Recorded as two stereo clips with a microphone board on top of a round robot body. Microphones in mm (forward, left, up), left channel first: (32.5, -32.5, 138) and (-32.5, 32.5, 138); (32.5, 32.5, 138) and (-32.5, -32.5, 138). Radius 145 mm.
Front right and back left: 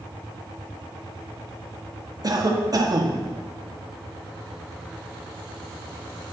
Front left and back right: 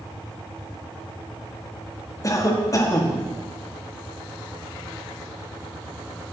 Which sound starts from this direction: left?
A cough, at 2.2 s.